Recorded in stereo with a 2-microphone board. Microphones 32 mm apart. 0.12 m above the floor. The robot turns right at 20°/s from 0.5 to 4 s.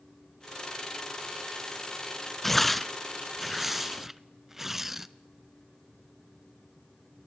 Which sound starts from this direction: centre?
Tearing paper, at 2.4 s.